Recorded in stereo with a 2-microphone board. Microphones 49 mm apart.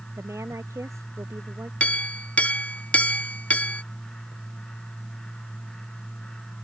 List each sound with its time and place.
0.2 s a woman speaking: 75° right (ahead or behind)
1.8 s a clink: 25° left (ahead or behind)